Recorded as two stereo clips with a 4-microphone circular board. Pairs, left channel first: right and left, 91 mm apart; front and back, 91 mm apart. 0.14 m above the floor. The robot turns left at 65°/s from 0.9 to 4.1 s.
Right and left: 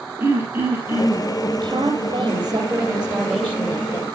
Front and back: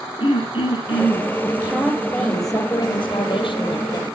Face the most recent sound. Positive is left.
turn(degrees=-55)